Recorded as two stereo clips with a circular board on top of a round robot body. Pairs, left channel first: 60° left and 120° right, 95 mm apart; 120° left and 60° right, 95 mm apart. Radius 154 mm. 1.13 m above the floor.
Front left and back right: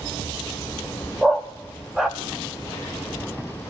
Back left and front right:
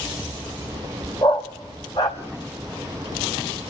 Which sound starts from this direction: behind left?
A dog barking, at 1.2 s.